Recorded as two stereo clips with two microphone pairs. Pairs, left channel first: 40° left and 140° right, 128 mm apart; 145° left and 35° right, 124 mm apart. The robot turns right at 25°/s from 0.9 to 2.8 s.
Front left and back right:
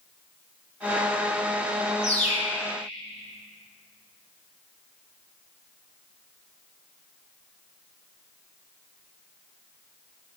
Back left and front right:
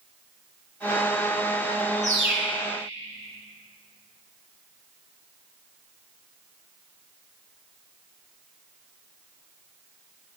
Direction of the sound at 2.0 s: 20° left.